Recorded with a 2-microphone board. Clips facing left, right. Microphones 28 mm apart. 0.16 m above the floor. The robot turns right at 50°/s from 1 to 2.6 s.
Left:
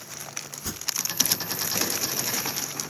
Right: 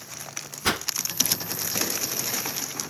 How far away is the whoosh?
About 0.5 m.